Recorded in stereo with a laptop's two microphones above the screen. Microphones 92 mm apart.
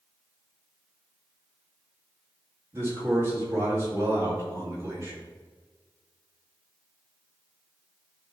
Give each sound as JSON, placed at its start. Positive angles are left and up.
{"t": 2.7, "sound": "a man speaking", "side_deg": -30, "distance_m": 2.0}